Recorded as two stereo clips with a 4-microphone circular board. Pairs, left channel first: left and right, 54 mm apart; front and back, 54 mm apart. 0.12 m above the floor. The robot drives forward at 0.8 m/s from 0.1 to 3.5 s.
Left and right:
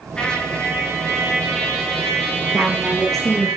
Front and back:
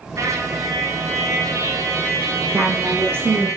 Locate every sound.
0.2 s a trumpet: 165° left, 1.7 m; by 3.5 s 175° left, 4.5 m
2.5 s a woman speaking: 170° left, 2 m; by 3.5 s 175° left, 2.5 m